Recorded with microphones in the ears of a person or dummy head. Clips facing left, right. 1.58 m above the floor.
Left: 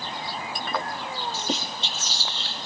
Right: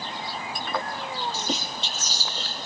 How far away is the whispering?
About 0.8 m.